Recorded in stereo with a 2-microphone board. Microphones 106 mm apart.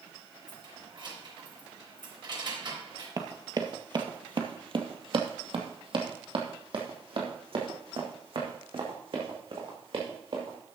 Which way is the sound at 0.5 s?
50° right (ahead or behind).